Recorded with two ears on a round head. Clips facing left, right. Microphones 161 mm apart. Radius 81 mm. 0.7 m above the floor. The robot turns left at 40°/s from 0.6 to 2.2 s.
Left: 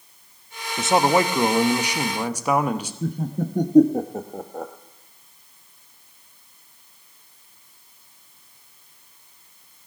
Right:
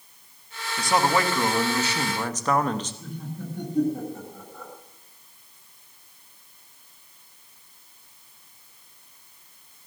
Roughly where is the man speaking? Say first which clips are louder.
Left 4 dB; left.